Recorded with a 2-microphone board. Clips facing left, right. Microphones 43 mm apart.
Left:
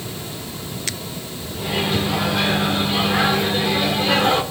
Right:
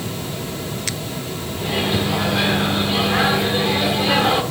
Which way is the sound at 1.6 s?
5° right (ahead or behind).